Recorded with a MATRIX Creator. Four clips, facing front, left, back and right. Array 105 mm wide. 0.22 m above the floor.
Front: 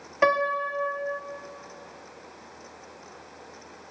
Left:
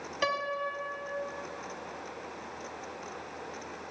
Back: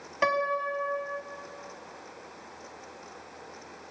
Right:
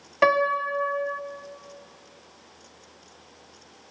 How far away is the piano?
About 1.4 m.